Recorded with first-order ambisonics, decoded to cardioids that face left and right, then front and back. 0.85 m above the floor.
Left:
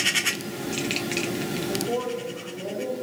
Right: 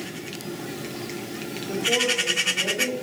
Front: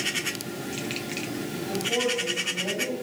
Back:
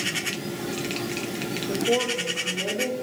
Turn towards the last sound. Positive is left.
turn(degrees=-165)